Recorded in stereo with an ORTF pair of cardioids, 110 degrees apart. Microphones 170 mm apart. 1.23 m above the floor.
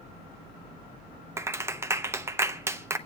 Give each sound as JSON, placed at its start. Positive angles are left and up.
{"t": 1.4, "sound": "a clap", "azimuth_deg": -15, "distance_m": 0.7}